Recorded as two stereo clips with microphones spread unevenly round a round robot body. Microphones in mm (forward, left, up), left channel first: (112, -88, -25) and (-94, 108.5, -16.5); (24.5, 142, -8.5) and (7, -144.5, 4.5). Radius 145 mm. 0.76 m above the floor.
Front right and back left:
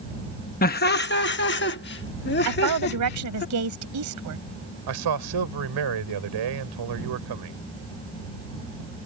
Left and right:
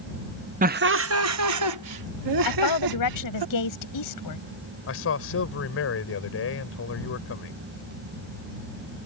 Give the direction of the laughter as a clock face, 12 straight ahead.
2 o'clock.